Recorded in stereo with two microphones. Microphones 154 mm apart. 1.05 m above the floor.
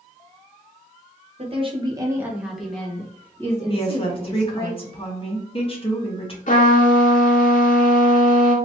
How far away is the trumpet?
About 1.4 m.